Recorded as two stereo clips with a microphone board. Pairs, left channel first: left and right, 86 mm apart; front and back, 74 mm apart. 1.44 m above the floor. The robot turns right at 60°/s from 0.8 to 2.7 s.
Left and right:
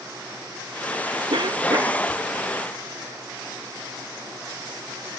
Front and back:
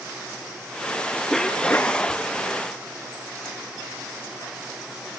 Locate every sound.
1.3 s a cough: 90° right; by 2.1 s 40° right